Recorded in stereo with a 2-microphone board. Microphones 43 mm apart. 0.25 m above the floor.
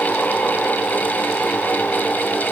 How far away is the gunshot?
I don't hear a gunshot.